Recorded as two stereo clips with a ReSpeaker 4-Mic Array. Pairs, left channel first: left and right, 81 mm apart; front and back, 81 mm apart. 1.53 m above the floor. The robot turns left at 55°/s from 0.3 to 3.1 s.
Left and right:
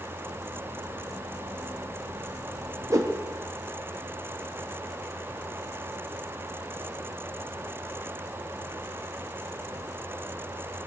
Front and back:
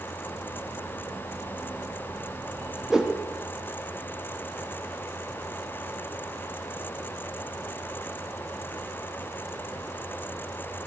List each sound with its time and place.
2.9 s a whoosh: 100° right, 1.1 m; by 3.2 s 110° right, 1.1 m